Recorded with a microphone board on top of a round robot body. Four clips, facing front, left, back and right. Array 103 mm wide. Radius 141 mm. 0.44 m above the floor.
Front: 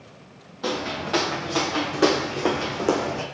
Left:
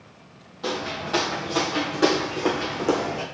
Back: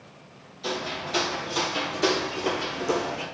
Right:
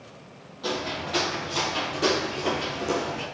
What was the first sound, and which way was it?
Footsteps, 15° left.